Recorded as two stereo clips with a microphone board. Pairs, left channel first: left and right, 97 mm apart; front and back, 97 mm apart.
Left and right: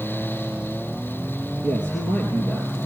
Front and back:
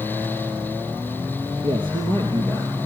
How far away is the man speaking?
About 3 m.